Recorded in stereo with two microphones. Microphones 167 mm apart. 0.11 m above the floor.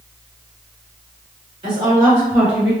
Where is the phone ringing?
No phone ringing in this recording.